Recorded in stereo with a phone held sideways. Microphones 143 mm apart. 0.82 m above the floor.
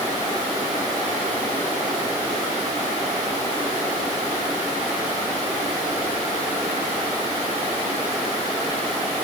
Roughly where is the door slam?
I don't hear a door slam.